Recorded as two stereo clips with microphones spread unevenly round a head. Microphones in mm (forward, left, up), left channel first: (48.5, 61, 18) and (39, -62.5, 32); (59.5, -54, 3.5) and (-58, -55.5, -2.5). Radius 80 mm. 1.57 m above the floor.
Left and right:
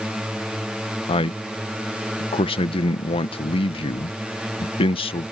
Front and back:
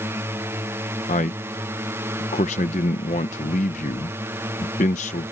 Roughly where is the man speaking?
Ahead left.